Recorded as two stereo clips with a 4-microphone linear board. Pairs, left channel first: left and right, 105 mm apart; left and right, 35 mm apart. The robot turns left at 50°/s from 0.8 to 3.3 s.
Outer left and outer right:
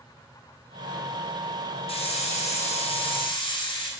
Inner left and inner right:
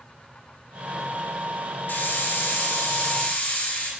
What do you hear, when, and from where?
1.9 s a hiss: 120° left, 0.9 m; by 3.9 s 45° left, 0.9 m